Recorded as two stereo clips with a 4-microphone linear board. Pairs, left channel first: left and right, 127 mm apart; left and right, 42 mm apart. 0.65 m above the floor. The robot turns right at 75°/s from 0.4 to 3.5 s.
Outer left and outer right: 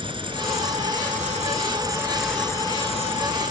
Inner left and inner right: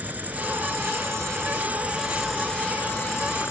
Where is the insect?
140° right; by 3.5 s 95° left.